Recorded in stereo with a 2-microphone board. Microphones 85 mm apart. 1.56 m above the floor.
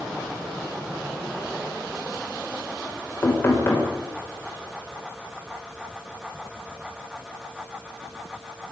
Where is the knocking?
30° left (ahead or behind), 6 m.